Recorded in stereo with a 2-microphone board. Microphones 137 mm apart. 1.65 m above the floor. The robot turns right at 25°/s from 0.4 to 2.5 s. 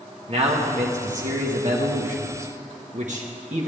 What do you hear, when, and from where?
0.3 s a man speaking: 125° right, 1.3 m; by 3.7 s 70° right, 1.3 m